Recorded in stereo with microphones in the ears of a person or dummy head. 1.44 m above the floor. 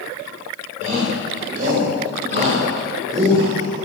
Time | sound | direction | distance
0.8 | a shout | 40° right (ahead or behind) | 7 m